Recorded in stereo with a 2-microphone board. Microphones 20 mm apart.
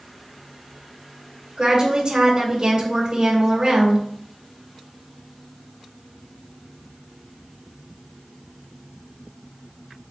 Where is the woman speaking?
30° right (ahead or behind), 2.0 m.